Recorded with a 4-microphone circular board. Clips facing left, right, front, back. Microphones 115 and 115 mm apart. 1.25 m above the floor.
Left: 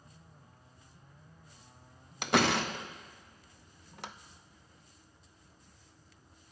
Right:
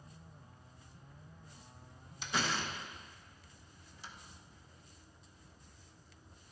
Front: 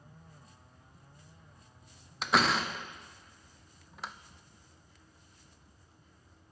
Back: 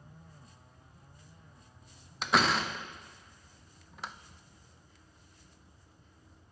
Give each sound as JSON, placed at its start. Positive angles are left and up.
{"t": 2.2, "sound": "a door slam", "azimuth_deg": 90, "distance_m": 0.6}